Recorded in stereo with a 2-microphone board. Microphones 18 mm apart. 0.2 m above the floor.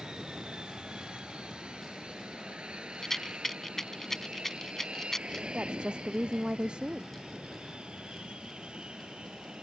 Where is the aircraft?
55° right (ahead or behind); by 9.6 s 65° right (ahead or behind).